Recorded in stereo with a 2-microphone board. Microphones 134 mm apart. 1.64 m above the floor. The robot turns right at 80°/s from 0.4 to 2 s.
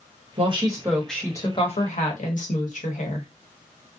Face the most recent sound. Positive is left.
turn(degrees=75)